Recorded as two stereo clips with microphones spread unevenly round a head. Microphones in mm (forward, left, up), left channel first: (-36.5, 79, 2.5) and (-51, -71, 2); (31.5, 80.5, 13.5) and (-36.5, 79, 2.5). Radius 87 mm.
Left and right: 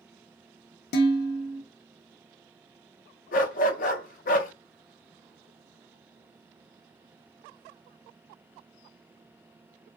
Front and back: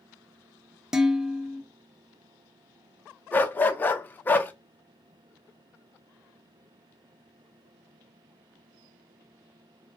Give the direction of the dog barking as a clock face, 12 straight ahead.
10 o'clock.